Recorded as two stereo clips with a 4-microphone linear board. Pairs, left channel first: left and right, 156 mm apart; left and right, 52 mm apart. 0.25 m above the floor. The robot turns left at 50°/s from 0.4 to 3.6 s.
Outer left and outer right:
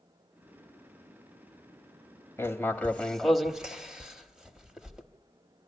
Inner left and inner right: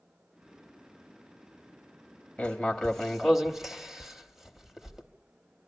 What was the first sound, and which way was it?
Writing, 15° left (ahead or behind).